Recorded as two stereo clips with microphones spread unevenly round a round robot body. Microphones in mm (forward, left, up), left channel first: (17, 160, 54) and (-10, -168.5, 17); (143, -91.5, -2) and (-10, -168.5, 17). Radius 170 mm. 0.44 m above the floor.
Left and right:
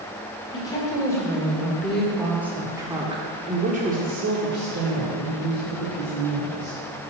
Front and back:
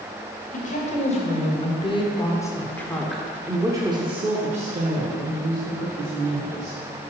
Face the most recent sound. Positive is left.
turn(degrees=-145)